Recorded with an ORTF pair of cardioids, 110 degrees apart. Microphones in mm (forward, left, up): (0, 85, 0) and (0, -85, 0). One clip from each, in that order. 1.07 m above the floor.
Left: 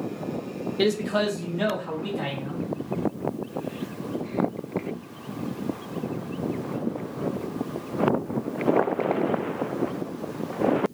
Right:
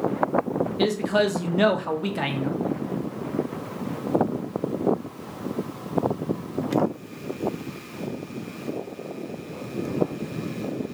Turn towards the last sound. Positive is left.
turn(degrees=-70)